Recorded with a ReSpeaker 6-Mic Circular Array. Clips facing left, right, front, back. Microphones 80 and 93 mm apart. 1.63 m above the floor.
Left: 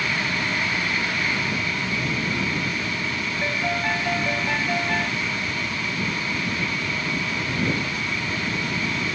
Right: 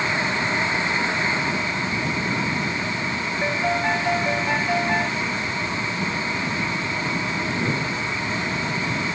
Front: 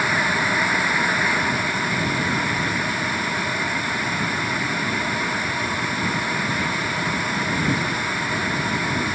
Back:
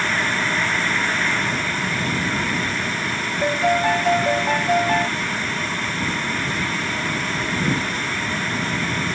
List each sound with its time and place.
3.4 s a piano: 165° right